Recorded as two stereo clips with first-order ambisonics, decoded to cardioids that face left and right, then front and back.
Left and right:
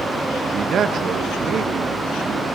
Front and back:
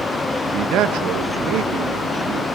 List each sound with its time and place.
0.5 s a man speaking: 145° right, 1.3 m